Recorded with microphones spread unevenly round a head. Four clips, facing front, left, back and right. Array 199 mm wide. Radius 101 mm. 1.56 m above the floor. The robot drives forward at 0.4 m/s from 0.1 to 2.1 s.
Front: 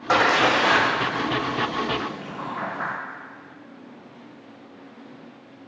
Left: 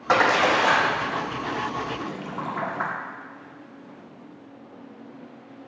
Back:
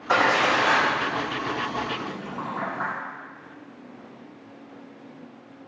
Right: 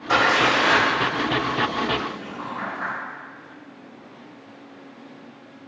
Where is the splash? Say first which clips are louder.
Even, front 2 dB; 40° left, 0.8 m; by 2.9 s 120° left, 0.7 m.